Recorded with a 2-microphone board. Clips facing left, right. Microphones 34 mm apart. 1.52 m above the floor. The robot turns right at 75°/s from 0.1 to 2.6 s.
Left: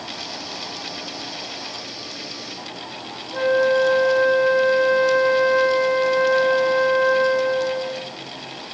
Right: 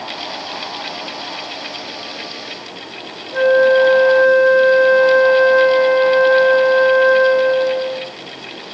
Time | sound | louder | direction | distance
3.3 | a flute | right 7 dB | 20° right (ahead or behind) | 2.5 m